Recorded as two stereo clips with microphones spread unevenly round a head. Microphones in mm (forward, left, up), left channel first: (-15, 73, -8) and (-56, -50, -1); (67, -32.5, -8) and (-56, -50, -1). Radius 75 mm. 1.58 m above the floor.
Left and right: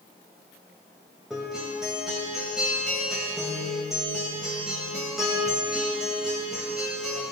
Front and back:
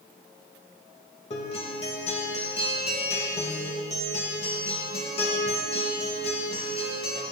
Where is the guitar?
25° right, 2.5 m.